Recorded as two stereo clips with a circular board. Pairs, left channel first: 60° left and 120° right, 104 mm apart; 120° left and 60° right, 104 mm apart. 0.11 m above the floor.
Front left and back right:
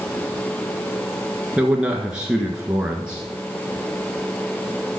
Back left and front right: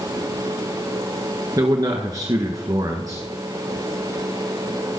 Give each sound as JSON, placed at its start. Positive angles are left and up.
{"t": 1.6, "sound": "a man speaking", "azimuth_deg": -45, "distance_m": 1.3}